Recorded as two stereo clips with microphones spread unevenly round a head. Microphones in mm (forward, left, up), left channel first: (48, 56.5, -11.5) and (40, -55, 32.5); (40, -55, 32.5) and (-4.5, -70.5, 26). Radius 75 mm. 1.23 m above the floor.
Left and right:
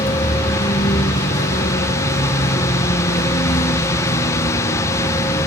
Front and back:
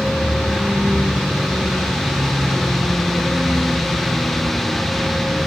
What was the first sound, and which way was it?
A vehicle, 120° left.